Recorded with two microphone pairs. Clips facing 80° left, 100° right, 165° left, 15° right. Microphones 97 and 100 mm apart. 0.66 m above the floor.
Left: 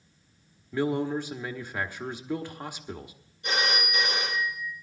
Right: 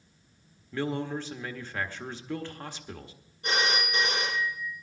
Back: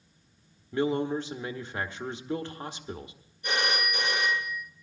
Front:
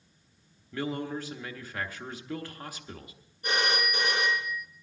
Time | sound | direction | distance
0.7 | a man speaking | 145° left | 1.0 m
3.4 | a phone ringing | 60° right | 6.5 m